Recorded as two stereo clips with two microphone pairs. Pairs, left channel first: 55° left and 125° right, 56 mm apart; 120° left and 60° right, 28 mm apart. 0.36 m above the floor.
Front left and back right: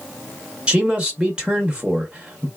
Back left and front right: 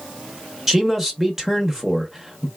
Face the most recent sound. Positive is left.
turn(degrees=-110)